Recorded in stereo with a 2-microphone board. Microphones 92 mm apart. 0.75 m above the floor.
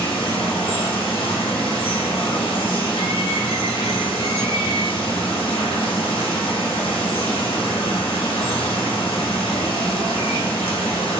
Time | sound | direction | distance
0.0 | running water | 70° left (ahead or behind) | 0.8 m